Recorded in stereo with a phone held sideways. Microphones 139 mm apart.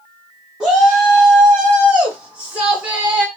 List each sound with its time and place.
0.6 s a shout: 5° right (ahead or behind), 1.4 m; by 3.3 s 10° right (ahead or behind), 1.1 m